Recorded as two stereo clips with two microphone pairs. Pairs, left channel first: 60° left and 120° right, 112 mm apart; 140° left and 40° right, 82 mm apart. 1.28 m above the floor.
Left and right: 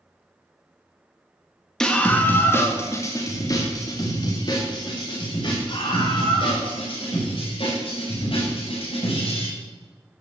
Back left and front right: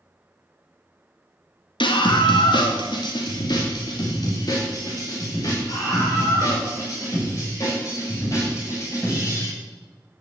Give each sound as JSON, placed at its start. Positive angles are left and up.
{"t": 1.8, "sound": "a scream", "azimuth_deg": 145, "distance_m": 1.9}